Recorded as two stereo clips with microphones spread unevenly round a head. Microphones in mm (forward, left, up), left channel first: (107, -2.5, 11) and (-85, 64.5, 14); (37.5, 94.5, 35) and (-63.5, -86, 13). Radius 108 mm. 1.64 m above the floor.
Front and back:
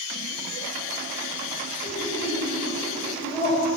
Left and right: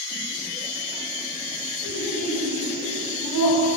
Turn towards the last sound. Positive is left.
turn(degrees=50)